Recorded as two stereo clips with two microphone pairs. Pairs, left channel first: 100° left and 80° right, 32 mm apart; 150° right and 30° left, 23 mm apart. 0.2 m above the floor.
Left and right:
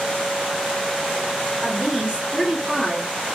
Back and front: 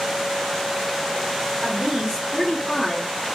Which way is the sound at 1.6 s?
60° right.